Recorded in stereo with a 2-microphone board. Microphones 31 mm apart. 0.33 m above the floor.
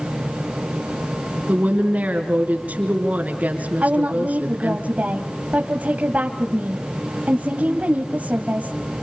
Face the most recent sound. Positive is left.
turn(degrees=-55)  # may be behind; listen again after turning